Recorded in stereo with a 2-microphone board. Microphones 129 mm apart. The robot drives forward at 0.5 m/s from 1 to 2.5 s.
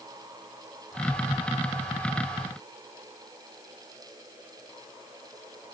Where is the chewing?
No chewing in this recording.